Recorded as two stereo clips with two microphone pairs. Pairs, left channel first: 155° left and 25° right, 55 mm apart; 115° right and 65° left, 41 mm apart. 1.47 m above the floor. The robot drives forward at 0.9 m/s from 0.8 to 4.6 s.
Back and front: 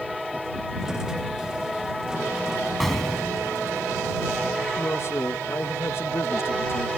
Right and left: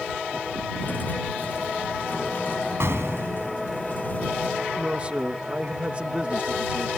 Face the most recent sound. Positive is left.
turn(degrees=125)